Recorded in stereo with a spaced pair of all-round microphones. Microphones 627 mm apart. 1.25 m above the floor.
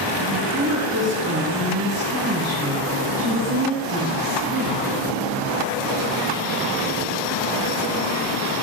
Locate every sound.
0.3 s a woman speaking: 20° right (ahead or behind), 1.4 m; by 4.8 s 15° right (ahead or behind), 4 m